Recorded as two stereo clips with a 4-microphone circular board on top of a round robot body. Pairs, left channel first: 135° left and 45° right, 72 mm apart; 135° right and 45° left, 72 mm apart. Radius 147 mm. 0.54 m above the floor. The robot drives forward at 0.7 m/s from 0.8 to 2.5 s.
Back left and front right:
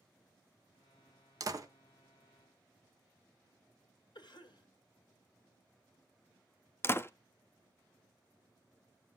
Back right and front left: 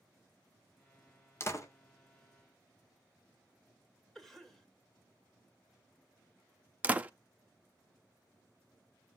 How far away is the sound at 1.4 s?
About 1.9 m.